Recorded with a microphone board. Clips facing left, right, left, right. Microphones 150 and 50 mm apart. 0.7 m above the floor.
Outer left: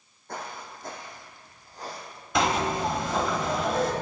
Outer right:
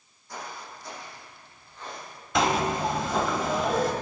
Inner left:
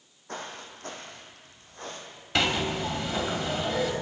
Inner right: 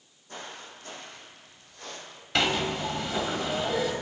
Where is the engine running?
No engine running in this recording.